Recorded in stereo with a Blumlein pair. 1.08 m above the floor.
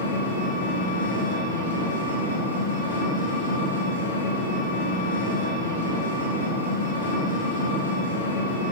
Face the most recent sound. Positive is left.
turn(degrees=70)